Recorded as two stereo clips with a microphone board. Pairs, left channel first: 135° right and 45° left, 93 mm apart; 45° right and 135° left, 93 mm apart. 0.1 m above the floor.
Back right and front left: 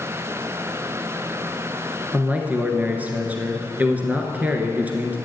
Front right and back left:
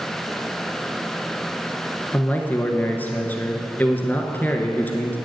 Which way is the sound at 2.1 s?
Straight ahead.